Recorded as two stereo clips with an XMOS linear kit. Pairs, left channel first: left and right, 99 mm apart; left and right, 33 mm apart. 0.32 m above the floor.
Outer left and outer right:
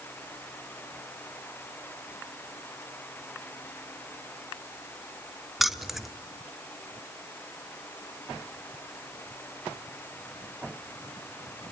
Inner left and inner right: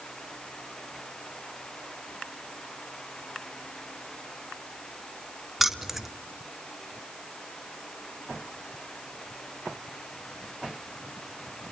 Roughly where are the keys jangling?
Centre.